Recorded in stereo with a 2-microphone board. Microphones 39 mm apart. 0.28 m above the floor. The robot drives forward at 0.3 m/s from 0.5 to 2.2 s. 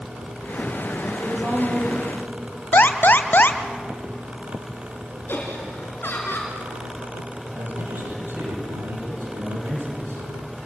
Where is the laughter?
65° left (ahead or behind), 3 m.